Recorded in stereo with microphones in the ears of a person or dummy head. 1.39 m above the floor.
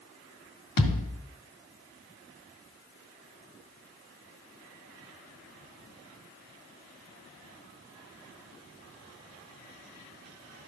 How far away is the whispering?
I don't hear whispering.